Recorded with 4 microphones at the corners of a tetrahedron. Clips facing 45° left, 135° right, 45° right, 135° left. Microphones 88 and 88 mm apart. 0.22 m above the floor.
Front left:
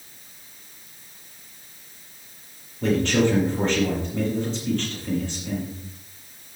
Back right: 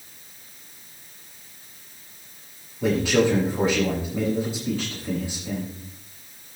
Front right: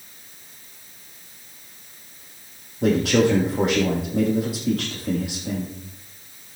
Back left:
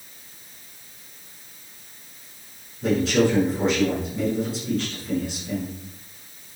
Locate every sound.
2.8 s a man speaking: 55° right, 6.5 m